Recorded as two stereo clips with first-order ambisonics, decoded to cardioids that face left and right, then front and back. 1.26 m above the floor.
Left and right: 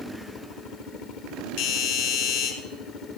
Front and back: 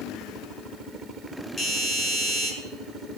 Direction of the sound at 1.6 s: 70° left.